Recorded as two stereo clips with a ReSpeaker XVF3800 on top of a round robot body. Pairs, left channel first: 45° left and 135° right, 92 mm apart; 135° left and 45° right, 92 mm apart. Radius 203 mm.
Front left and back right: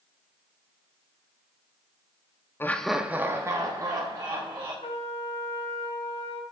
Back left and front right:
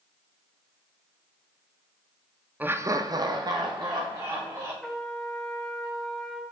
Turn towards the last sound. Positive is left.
turn(degrees=45)